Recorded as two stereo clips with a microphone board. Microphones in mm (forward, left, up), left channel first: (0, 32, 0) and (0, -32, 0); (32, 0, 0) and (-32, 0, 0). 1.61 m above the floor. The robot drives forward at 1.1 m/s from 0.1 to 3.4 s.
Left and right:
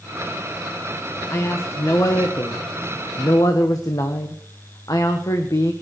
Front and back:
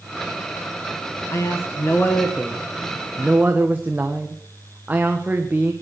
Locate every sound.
1.3 s a man speaking: 40° left, 2 m; by 5.7 s 115° left, 1.5 m